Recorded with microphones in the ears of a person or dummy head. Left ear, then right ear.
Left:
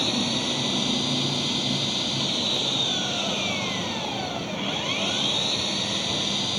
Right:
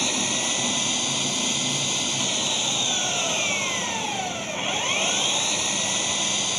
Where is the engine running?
40° right (ahead or behind).